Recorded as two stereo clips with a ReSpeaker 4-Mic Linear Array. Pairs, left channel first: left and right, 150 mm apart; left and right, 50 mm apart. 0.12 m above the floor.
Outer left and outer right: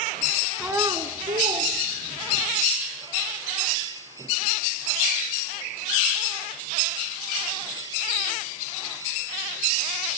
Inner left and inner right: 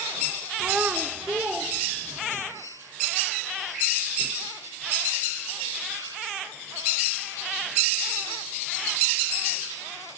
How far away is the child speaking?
About 0.7 m.